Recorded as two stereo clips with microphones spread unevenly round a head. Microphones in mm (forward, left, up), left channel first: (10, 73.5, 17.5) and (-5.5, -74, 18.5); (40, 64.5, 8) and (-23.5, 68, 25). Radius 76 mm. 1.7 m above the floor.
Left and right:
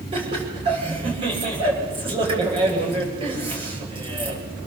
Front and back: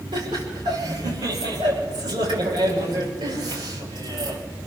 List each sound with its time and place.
0.1 s laughter: 150° right, 9.5 m